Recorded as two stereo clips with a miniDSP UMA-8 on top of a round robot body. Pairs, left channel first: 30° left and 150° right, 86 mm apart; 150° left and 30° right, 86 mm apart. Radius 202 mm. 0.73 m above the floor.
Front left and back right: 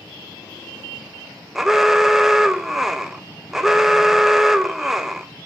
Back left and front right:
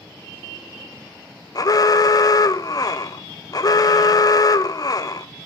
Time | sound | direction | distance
1.6 | an alarm | 125° left | 1.2 m